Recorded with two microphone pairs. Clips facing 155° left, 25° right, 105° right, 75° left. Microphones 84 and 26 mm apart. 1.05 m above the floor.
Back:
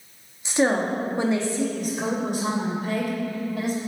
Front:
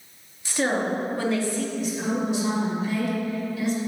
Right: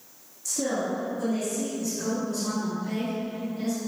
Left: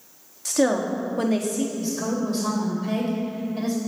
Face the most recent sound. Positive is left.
turn(degrees=110)